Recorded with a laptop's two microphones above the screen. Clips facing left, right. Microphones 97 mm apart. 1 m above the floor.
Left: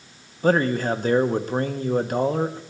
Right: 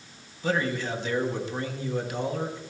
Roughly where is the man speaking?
Left.